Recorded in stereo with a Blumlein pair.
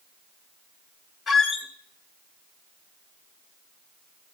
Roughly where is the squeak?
Ahead.